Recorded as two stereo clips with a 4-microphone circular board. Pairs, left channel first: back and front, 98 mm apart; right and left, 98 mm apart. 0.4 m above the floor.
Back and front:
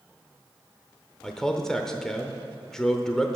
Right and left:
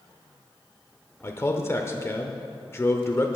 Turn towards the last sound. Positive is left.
turn(degrees=-100)